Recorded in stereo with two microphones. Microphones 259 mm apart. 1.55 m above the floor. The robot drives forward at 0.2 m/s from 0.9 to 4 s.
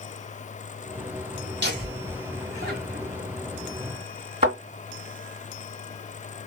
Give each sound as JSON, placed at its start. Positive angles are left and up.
{"t": 1.6, "sound": "laughter", "side_deg": -40, "distance_m": 3.0}
{"t": 4.4, "sound": "a thud", "side_deg": -25, "distance_m": 3.0}